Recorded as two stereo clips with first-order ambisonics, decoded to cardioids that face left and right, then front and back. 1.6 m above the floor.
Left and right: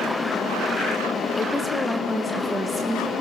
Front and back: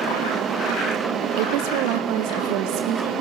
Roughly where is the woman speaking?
Behind.